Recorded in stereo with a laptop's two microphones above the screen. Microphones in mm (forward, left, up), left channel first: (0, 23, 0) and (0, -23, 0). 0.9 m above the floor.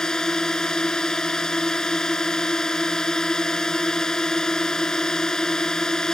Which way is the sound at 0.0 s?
15° left (ahead or behind).